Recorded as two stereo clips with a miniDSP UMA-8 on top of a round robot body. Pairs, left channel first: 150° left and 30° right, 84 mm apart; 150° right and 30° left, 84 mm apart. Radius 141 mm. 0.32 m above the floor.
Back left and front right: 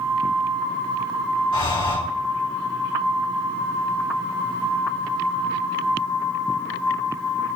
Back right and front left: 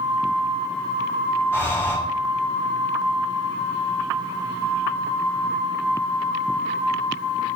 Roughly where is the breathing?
Behind left.